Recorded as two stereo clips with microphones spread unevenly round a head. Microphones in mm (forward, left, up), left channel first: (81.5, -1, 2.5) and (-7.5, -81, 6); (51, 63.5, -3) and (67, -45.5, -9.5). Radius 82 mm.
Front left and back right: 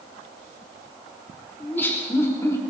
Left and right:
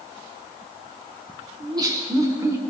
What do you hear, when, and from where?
1.6 s laughter: 30° right, 4 m; by 2.6 s 20° right, 4.5 m